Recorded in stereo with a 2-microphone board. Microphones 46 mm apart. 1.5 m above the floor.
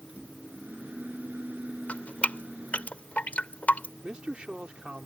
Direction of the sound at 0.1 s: 35° right (ahead or behind).